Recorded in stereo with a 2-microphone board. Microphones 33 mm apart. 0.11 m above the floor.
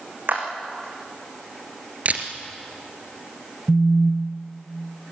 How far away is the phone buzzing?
About 1.1 m.